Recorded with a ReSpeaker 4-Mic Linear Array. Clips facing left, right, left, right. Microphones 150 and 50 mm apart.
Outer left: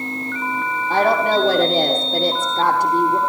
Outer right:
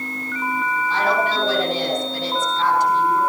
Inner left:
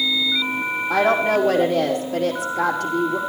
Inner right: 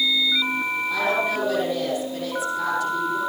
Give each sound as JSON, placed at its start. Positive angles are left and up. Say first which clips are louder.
{"t": 0.9, "sound": "a woman speaking", "louder": "outer left 6 dB, inner left 7 dB", "side_deg": 55, "distance_m": 5.0}